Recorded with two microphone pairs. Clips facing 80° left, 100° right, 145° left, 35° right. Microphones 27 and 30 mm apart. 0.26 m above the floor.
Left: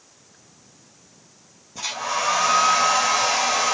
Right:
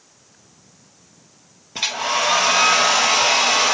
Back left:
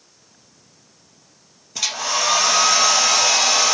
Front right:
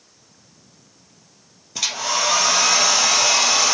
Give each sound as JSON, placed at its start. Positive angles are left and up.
{"t": 1.8, "sound": "a hair dryer", "azimuth_deg": -125, "distance_m": 2.5}